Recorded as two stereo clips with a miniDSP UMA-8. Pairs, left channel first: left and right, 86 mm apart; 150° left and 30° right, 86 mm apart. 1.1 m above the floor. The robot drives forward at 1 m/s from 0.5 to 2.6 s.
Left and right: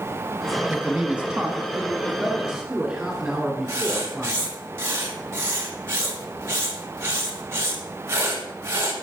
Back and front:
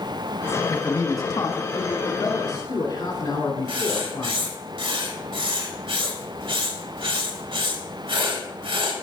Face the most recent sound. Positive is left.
turn(degrees=-30)